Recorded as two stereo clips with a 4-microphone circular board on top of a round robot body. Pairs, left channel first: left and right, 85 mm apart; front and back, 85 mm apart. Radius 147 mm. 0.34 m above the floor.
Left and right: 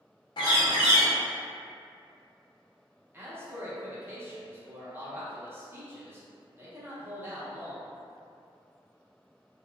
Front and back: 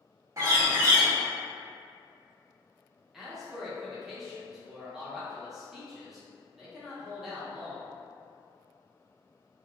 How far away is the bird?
About 0.5 m.